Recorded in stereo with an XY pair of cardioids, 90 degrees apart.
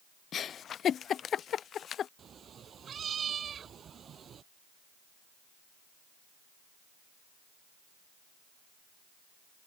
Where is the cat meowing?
60° right.